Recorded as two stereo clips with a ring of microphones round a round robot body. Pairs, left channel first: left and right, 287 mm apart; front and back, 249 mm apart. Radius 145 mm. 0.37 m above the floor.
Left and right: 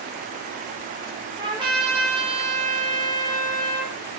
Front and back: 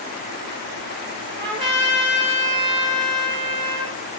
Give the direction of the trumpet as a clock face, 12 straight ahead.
5 o'clock.